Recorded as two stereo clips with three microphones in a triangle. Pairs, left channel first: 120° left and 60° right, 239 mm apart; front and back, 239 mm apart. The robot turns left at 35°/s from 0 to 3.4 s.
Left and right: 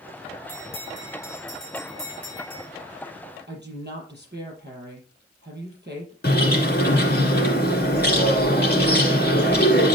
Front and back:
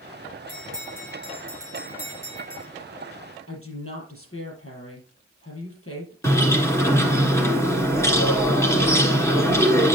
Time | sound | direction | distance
0.5 | a bell | 95° left | 4.5 m
3.5 | a woman speaking | 15° right | 5.5 m
6.2 | a bird | 80° left | 1.7 m